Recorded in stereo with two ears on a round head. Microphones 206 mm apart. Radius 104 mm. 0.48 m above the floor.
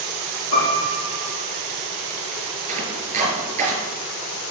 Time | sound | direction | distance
0.5 | a piano | 75° left (ahead or behind) | 6 m
2.7 | chopping | 30° right (ahead or behind) | 4.5 m